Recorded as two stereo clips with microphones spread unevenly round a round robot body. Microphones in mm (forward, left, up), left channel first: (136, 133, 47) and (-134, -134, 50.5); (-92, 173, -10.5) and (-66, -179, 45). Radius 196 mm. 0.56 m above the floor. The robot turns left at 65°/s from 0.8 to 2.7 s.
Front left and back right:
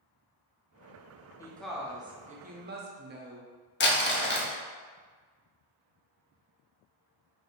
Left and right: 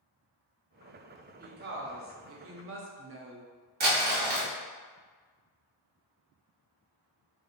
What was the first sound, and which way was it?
A woman speaking, 25° right.